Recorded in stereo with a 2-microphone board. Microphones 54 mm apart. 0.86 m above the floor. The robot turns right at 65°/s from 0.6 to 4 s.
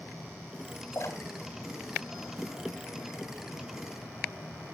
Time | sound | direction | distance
0.9 | a splash | 65° left (ahead or behind) | 4 m